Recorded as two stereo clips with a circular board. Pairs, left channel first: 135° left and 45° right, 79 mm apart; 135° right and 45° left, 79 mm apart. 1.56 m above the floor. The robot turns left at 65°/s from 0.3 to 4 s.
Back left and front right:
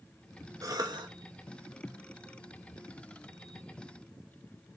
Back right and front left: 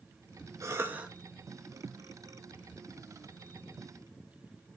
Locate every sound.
0.6 s a cough: straight ahead, 2 m; by 1.1 s 35° right, 2 m